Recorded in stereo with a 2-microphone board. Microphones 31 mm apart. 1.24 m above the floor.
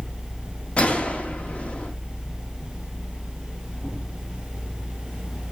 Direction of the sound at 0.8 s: 35° left (ahead or behind).